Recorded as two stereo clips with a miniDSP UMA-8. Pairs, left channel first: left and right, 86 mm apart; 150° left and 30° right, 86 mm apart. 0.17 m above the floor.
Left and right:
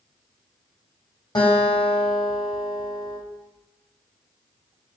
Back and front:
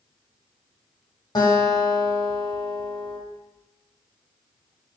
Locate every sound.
1.4 s a guitar: 110° left, 1.5 m